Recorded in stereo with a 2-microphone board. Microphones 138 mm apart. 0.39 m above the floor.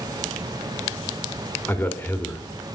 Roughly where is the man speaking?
Centre.